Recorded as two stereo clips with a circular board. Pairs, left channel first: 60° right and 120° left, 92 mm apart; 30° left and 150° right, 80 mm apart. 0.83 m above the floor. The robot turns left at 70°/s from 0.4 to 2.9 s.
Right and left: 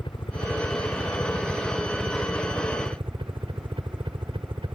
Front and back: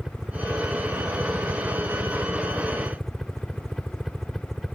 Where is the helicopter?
70° right; by 4.8 s 115° left.